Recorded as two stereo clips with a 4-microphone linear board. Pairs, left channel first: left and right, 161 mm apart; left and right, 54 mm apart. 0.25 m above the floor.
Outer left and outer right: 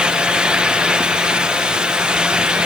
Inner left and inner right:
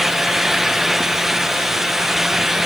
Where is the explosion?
No explosion in this recording.